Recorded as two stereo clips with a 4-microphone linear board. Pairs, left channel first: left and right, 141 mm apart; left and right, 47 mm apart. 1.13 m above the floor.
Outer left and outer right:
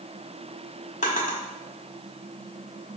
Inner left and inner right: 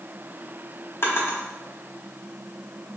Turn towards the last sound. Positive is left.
turn(degrees=60)  # may be behind; listen again after turning